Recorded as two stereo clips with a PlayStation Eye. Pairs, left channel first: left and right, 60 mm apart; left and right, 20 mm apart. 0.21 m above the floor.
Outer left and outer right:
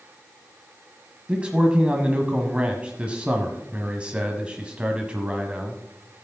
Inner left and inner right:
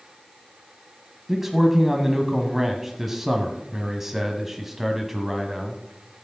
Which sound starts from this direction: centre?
A man speaking, at 1.3 s.